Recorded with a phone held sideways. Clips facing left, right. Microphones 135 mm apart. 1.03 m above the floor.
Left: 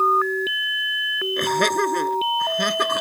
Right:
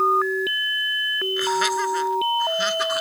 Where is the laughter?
55° left (ahead or behind).